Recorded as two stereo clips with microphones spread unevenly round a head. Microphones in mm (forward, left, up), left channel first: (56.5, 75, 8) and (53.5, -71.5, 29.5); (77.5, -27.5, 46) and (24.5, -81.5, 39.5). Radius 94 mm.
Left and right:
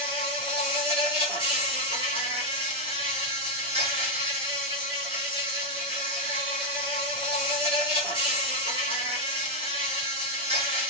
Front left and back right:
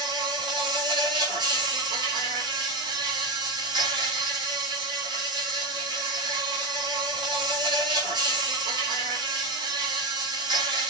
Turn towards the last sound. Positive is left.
turn(degrees=-150)